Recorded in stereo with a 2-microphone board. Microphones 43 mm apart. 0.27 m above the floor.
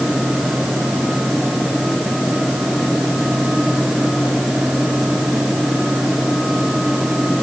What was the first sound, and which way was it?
Only background noise.